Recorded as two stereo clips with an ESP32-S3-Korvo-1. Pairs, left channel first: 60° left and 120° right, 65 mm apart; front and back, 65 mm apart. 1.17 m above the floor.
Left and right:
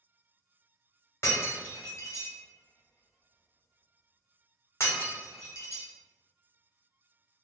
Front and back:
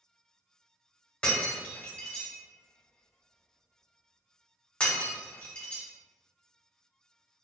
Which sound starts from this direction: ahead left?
Breaking glass, at 1.2 s.